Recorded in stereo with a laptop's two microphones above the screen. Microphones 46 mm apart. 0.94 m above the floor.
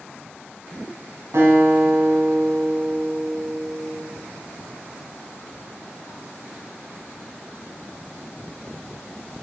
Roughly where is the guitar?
Right.